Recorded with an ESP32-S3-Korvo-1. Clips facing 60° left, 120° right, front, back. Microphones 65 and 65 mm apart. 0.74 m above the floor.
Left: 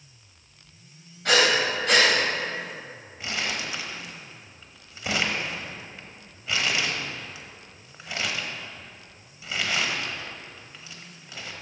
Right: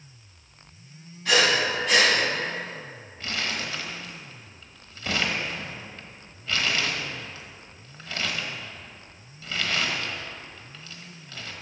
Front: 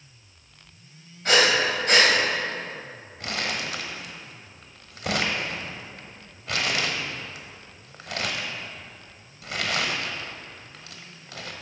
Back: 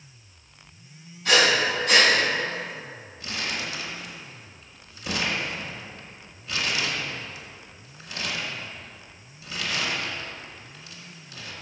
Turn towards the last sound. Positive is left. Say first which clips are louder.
# even, front 2 dB
turn(degrees=-15)